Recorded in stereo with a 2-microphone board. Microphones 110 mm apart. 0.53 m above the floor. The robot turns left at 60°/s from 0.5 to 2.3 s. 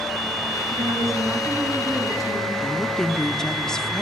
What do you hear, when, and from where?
0.7 s a woman speaking: 125° right, 4.5 m; by 2.5 s 140° left, 4.5 m
2.6 s a woman speaking: 5° left (ahead or behind), 0.7 m